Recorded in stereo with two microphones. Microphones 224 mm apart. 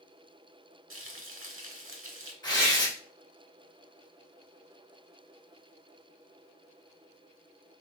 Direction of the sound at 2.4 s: 20° left (ahead or behind).